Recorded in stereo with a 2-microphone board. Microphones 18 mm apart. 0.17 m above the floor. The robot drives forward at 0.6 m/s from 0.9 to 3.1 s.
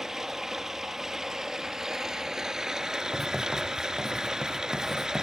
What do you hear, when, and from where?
0.0 s running water: 20° right (ahead or behind), 3 m; by 5.2 s 30° right (ahead or behind), 2.0 m
3.1 s writing: 5° left (ahead or behind), 6.5 m